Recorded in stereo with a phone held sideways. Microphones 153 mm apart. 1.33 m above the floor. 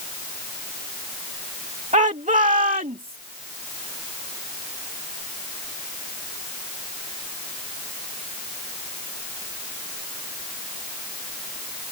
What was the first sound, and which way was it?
A shout, 50° right (ahead or behind).